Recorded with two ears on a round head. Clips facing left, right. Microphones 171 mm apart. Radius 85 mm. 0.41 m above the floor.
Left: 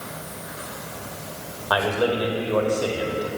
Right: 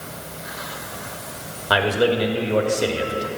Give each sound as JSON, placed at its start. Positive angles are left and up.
{"t": 1.7, "sound": "a man speaking", "side_deg": -30, "distance_m": 1.2}